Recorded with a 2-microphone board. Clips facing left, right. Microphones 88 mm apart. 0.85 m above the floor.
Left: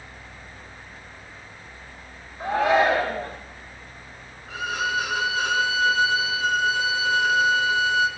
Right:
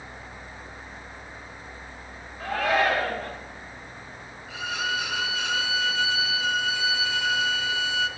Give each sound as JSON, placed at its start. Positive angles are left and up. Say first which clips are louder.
{"t": 2.4, "sound": "a shout", "louder": "left 4 dB", "side_deg": 25, "distance_m": 1.2}
{"t": 4.5, "sound": "a violin", "louder": "left 4 dB", "side_deg": 45, "distance_m": 0.6}